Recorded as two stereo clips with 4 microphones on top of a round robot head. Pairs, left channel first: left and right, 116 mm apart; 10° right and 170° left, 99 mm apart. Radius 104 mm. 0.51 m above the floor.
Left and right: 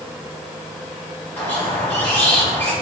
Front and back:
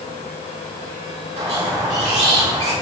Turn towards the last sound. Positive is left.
turn(degrees=160)